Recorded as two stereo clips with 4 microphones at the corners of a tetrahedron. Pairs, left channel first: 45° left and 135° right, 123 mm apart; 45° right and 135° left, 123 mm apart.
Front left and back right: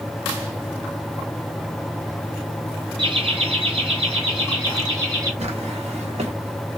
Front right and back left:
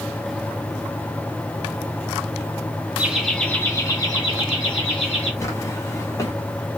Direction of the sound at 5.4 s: 110° right.